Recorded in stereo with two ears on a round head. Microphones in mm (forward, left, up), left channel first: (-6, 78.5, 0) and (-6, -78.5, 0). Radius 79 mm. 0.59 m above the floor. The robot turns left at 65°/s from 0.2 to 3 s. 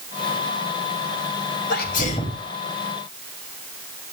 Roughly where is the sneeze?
Ahead left.